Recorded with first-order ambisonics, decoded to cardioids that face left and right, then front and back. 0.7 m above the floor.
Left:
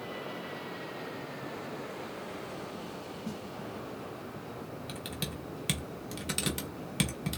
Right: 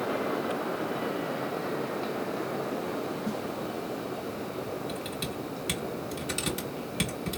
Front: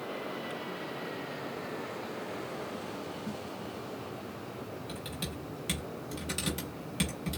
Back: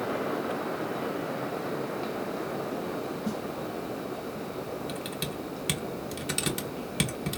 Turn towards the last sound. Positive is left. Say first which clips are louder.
# right 5 dB, back 5 dB
turn(degrees=160)